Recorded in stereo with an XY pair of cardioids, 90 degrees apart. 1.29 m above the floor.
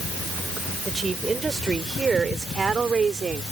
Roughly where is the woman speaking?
Ahead right.